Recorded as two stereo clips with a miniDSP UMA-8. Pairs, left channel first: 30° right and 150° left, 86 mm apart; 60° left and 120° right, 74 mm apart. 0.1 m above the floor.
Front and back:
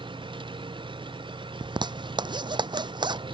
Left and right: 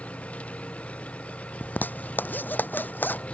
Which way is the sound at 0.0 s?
130° left.